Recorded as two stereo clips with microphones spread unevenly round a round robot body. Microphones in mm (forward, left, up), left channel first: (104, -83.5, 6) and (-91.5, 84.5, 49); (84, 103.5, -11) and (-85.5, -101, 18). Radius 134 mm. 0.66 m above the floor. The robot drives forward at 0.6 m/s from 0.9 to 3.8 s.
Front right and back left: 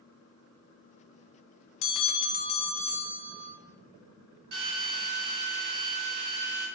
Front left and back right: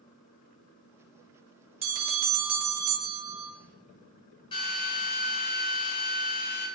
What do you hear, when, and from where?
1.8 s a bell: 65° right, 0.6 m; by 3.5 s 150° right, 1.0 m
4.5 s a drill: 125° left, 1.8 m